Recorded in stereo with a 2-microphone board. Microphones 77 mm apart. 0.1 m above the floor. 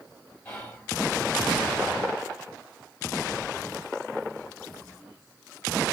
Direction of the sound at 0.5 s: 20° left (ahead or behind).